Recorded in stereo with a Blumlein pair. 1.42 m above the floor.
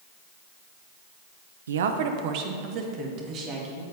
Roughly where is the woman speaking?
Right.